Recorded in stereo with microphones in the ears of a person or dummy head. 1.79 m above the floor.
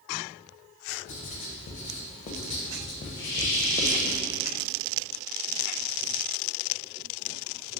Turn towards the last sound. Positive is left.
turn(degrees=60)  # may be behind; listen again after turning